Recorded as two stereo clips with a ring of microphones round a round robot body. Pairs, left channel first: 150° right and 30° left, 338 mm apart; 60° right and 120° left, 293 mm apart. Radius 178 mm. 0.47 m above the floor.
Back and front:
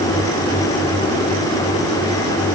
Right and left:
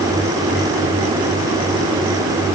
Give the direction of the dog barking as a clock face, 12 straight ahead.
I don't hear a dog barking.